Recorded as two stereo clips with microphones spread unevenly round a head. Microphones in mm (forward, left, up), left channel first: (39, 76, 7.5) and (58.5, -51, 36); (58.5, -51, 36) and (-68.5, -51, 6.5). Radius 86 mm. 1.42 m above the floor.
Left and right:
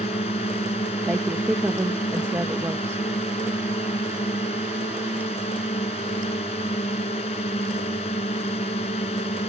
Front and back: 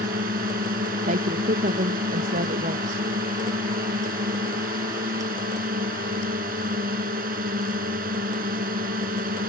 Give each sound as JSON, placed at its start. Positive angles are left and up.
{"t": 0.0, "sound": "a drone", "azimuth_deg": 155}
{"t": 1.1, "sound": "a woman speaking", "azimuth_deg": -160}